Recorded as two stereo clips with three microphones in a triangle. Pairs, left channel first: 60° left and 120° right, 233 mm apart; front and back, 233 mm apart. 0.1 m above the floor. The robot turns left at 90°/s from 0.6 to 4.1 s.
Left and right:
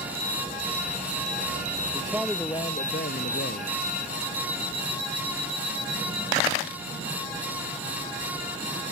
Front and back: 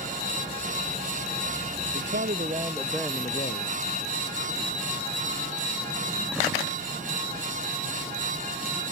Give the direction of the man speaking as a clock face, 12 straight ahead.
6 o'clock.